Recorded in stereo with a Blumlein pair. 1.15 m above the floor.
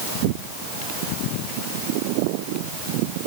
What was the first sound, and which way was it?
Only background noise.